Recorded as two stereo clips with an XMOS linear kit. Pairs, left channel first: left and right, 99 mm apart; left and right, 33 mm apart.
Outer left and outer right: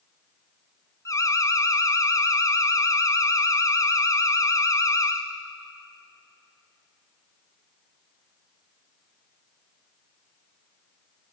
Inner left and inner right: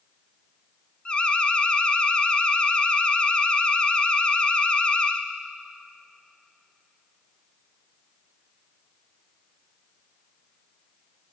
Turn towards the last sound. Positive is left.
turn(degrees=35)  # may be behind; listen again after turning